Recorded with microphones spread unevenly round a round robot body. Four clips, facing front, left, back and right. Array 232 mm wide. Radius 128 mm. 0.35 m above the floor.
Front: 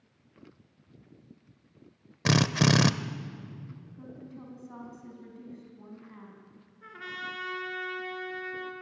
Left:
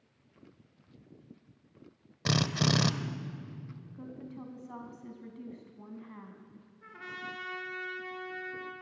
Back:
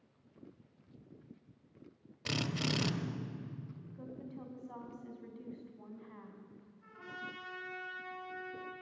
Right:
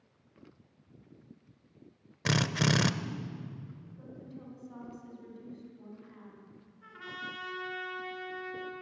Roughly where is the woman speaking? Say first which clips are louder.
Left 4 dB, front 1 dB; left.